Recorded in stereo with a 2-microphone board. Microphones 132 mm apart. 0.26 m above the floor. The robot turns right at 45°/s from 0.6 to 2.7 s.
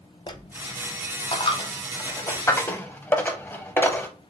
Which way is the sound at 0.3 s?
35° left (ahead or behind).